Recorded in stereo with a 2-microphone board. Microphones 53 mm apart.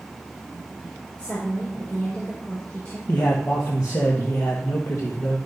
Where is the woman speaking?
25° left (ahead or behind), 4 m.